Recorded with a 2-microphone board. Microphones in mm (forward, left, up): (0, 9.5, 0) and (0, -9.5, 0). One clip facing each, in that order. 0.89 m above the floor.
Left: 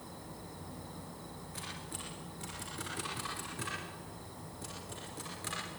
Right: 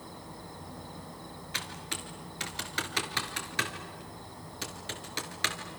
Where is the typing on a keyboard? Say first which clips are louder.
Right 9 dB; 65° right (ahead or behind), 4.5 m.